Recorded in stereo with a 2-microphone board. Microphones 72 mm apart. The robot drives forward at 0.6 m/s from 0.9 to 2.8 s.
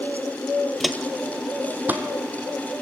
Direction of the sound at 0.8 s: Centre (ahead or behind).